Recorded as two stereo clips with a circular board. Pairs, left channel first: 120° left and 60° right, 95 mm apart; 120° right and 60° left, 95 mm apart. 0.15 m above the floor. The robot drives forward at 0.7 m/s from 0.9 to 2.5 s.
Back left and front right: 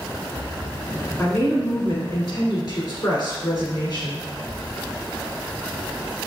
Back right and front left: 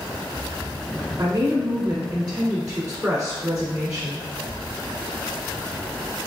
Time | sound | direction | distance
1.2 | a woman speaking | 65° left | 1.2 m